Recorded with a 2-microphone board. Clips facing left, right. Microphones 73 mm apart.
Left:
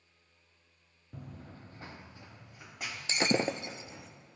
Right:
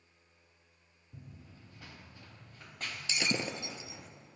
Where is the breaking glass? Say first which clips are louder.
Left 6 dB; 40° left (ahead or behind), 0.6 m.